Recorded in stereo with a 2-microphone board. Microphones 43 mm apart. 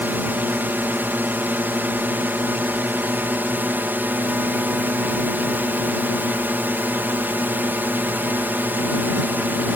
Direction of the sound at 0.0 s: 50° right (ahead or behind).